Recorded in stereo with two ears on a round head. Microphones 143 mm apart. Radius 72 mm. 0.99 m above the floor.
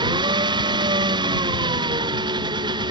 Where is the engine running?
30° right (ahead or behind).